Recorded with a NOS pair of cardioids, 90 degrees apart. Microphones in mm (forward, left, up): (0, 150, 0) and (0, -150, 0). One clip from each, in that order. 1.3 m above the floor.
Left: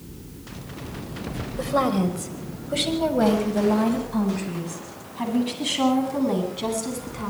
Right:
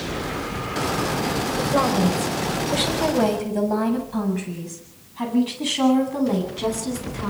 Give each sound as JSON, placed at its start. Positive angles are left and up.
{"t": 1.6, "sound": "a woman speaking", "azimuth_deg": 0, "distance_m": 5.5}